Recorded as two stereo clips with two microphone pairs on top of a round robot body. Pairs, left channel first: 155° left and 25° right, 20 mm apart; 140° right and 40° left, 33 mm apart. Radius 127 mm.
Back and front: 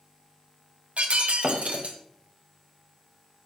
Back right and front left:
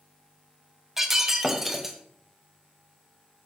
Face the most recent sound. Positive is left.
turn(degrees=-40)